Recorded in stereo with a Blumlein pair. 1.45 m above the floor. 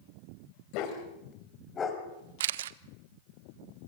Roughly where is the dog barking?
Ahead left.